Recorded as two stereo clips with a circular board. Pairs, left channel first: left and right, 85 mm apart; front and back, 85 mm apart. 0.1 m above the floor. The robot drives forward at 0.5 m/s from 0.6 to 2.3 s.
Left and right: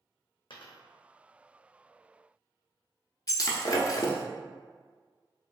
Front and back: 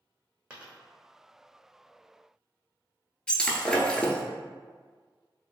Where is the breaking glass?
75° left, 0.5 m.